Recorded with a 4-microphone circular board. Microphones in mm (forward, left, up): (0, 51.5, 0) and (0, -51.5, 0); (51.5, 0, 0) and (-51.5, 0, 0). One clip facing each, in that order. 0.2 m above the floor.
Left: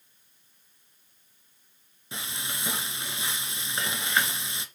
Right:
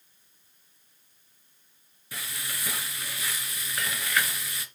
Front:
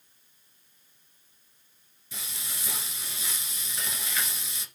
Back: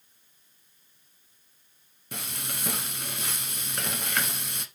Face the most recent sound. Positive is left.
turn(degrees=155)